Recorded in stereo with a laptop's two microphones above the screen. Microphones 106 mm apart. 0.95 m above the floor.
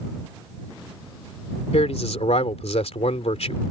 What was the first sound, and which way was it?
A man speaking, 75° left (ahead or behind).